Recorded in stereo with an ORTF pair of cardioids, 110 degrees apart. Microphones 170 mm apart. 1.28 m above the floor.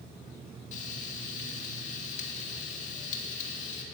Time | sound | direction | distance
0.7 | frying | 50° left | 2.5 m